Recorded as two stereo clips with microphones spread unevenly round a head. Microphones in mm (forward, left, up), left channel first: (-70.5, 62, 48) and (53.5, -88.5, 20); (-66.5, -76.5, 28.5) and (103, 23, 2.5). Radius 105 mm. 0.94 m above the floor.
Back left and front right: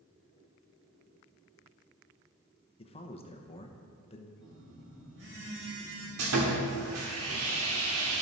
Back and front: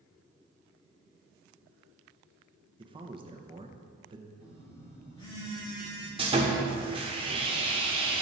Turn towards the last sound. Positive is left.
turn(degrees=-35)